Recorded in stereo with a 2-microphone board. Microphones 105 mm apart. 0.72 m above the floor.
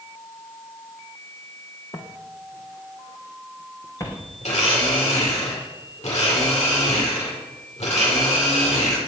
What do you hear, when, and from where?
1.9 s footsteps: 45° left (ahead or behind), 2.5 m; by 4.3 s 30° left (ahead or behind), 3.5 m
4.4 s a blender: 80° left, 7 m